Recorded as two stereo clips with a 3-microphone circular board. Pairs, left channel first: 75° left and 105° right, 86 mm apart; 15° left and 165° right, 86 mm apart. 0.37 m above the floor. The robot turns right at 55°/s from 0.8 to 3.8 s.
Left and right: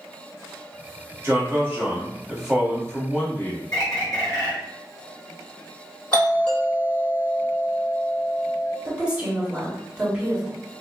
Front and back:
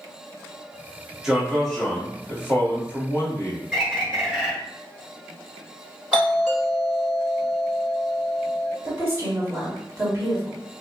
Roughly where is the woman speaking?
Behind.